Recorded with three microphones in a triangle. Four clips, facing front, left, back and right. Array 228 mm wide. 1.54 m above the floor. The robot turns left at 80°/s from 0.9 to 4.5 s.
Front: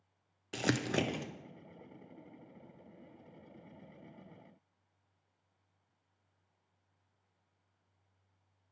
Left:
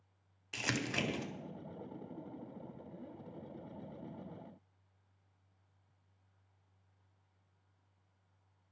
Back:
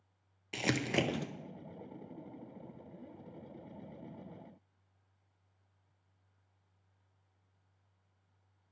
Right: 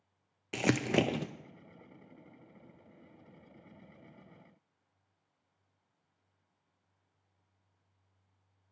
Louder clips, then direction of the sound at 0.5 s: Right 9 dB, even; 75° right.